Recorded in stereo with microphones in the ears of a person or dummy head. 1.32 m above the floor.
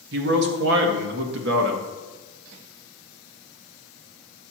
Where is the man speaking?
70° right (ahead or behind), 1.6 m.